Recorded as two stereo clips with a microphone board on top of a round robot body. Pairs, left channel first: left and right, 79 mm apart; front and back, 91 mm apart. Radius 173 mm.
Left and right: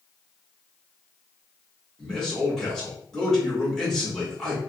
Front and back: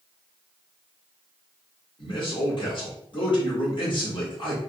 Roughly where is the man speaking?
Ahead.